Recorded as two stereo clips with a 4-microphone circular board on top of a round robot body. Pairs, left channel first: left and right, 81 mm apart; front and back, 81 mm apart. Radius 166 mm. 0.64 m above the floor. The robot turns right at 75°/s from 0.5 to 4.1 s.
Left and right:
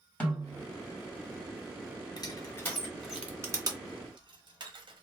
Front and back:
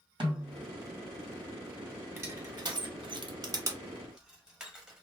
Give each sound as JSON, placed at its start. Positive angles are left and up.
{"t": 0.2, "sound": "a snare drum", "azimuth_deg": 165, "distance_m": 1.9}
{"t": 2.2, "sound": "crushing", "azimuth_deg": 115, "distance_m": 1.1}